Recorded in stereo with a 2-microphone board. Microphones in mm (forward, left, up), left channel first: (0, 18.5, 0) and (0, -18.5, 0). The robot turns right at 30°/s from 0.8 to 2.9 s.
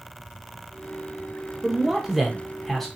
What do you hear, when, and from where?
1.6 s a man speaking: 10° right (ahead or behind), 0.8 m; by 2.9 s 5° left (ahead or behind), 0.8 m